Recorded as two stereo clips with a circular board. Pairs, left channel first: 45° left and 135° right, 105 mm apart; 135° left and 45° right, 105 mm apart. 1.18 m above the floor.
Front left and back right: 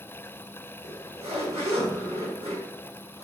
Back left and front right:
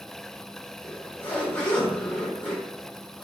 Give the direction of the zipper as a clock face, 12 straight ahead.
5 o'clock.